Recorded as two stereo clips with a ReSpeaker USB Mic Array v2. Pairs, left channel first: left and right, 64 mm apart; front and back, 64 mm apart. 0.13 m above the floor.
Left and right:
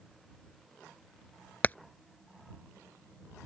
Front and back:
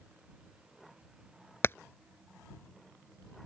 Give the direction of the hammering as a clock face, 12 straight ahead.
11 o'clock.